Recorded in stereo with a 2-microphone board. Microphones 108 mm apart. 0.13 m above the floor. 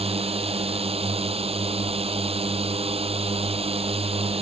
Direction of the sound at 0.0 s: 60° right (ahead or behind).